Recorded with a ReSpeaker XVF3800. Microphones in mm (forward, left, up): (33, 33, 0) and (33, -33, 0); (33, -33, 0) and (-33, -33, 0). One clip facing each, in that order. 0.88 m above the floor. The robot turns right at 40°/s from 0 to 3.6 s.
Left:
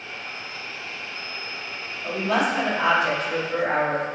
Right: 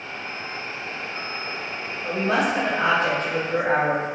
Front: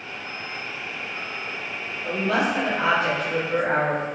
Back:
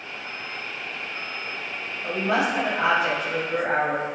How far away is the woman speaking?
About 0.9 m.